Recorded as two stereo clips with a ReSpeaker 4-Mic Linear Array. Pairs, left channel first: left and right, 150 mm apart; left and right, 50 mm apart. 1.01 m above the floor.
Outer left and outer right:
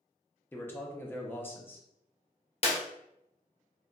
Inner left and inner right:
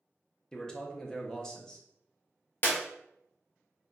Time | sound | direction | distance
0.5 | a man speaking | 15° left (ahead or behind) | 0.6 m
2.6 | a clap | 45° left (ahead or behind) | 0.7 m